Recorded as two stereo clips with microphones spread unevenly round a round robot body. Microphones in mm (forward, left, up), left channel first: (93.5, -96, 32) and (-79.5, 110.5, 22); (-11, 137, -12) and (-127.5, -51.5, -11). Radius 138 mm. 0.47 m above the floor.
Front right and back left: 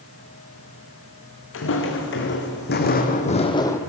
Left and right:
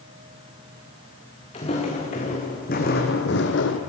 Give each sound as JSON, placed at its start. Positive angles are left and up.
{"t": 1.5, "sound": "footsteps", "azimuth_deg": -10, "distance_m": 2.5}